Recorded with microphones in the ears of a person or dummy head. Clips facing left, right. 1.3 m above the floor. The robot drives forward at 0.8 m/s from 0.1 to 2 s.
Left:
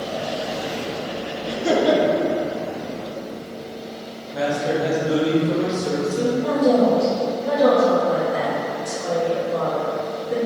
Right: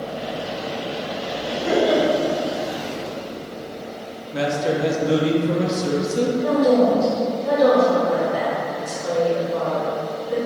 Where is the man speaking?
25° right (ahead or behind), 0.9 m.